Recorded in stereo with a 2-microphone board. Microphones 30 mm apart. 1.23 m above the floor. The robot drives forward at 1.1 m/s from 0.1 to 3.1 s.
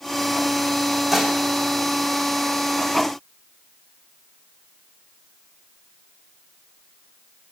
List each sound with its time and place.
1.1 s dishes clattering: 10° right (ahead or behind), 2.5 m